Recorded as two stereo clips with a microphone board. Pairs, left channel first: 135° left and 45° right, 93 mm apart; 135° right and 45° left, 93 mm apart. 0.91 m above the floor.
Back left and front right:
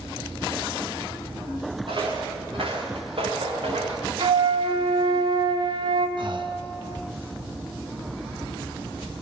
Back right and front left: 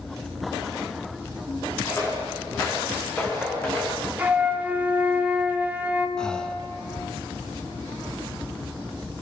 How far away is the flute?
About 1.9 m.